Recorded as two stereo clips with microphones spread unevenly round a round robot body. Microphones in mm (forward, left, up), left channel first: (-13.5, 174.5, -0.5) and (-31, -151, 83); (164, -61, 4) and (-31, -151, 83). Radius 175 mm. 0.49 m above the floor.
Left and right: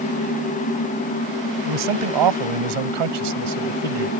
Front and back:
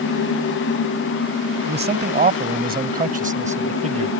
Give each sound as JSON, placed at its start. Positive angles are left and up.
{"t": 1.6, "sound": "a man speaking", "azimuth_deg": -110}